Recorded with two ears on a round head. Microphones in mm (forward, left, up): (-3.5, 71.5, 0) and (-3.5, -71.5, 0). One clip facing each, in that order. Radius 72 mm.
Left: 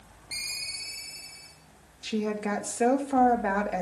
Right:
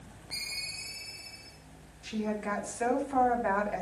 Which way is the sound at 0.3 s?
30° left (ahead or behind).